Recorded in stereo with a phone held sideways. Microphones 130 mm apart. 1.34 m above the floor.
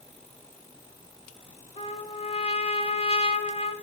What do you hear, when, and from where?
1.8 s a trumpet: 50° left (ahead or behind), 1.4 m